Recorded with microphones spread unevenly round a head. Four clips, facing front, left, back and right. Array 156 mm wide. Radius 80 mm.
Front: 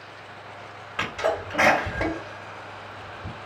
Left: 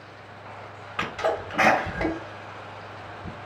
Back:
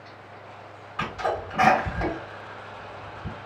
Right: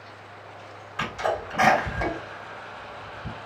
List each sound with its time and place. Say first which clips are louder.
1.0 s a sneeze: left 1 dB, front 2 dB; 30° left, 1.7 m